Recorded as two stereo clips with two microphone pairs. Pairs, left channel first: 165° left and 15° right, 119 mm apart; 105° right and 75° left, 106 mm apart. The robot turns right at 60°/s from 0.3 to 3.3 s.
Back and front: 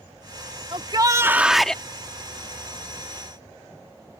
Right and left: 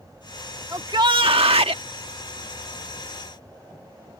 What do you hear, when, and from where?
0.7 s a shout: 20° left; by 1.8 s 90° left